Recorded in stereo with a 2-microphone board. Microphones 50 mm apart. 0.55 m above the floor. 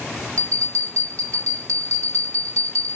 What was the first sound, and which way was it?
A bell, 65° right (ahead or behind).